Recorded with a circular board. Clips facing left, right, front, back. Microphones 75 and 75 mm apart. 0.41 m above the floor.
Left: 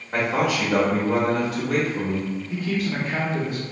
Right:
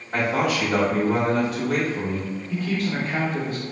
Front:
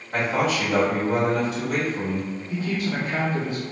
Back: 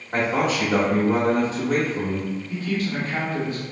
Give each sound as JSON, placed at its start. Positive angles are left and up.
{"t": 0.1, "sound": "a man speaking", "azimuth_deg": 150, "distance_m": 1.2}
{"t": 2.5, "sound": "a man speaking", "azimuth_deg": 25, "distance_m": 0.8}